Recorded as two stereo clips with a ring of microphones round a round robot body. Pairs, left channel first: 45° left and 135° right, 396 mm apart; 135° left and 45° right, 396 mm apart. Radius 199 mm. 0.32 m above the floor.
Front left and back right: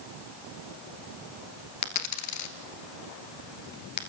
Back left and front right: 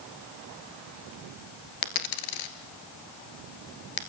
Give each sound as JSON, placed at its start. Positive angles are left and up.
{"t": 1.8, "sound": "a dropped coin", "azimuth_deg": 95, "distance_m": 1.8}